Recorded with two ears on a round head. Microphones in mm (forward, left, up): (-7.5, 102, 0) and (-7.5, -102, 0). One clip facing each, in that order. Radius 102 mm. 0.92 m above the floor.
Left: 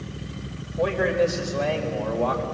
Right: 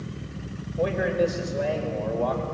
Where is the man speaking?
10° right (ahead or behind), 4.5 m; by 2.4 s 5° left (ahead or behind), 4 m.